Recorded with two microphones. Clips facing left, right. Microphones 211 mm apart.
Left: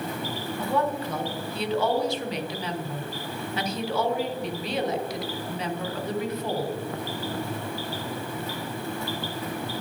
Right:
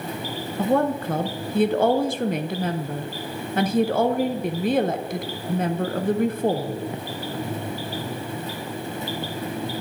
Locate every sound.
0.6 s a woman speaking: 55° right (ahead or behind), 0.5 m